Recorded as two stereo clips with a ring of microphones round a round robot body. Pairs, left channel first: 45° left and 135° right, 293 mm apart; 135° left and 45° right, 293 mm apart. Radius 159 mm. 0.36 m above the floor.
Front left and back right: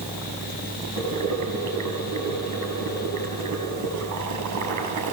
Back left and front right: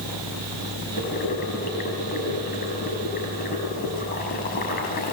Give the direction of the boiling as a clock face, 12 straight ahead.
6 o'clock.